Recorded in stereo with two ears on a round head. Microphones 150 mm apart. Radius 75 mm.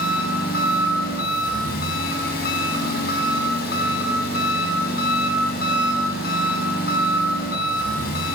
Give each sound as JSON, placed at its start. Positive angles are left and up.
{"t": 0.0, "sound": "an engine running", "side_deg": 65, "distance_m": 5.5}